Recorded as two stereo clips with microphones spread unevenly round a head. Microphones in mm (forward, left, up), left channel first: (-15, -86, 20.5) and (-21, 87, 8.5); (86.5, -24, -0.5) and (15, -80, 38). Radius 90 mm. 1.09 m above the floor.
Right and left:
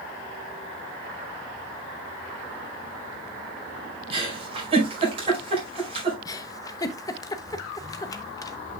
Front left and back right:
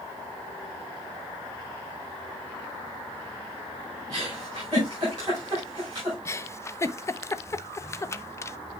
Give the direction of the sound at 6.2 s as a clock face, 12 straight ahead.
1 o'clock.